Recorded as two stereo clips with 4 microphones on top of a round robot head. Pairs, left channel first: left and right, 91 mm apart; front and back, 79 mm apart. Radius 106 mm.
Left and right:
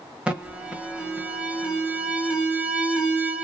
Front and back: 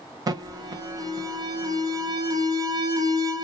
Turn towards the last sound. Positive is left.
turn(degrees=-165)